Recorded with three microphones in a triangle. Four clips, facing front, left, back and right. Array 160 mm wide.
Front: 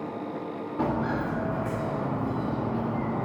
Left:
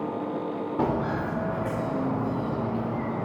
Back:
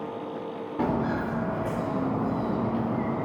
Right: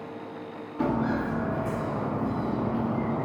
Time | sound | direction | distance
0.8 | footsteps | 95° left | 1.4 m